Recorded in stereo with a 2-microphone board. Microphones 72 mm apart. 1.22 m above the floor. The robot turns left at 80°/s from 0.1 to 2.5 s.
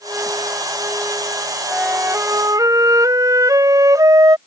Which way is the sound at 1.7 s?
10° right.